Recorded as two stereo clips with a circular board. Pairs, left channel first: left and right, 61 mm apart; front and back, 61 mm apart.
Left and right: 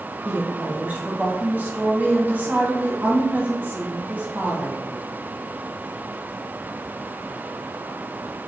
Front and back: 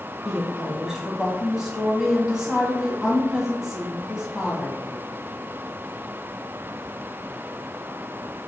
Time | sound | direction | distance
0.2 | a woman speaking | 105° right | 1.1 m